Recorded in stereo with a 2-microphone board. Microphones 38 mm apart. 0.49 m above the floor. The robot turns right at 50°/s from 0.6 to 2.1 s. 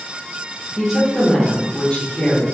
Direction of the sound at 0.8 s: 5° right.